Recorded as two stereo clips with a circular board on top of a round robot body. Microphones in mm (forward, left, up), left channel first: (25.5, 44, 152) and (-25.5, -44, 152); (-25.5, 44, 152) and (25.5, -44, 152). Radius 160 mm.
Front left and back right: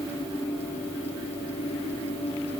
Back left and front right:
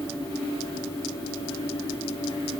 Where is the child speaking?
I don't hear a child speaking.